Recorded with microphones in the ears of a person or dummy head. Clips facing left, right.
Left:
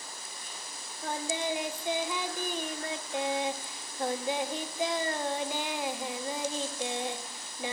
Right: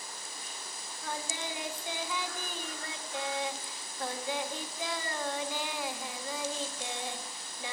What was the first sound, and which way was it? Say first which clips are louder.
Singing: left 6 dB; 20° left (ahead or behind).